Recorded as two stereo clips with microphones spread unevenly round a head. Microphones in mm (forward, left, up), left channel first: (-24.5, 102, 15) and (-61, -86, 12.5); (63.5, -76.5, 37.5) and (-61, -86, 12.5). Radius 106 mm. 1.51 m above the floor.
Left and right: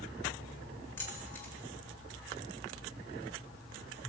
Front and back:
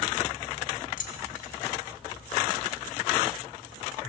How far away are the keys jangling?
About 3 m.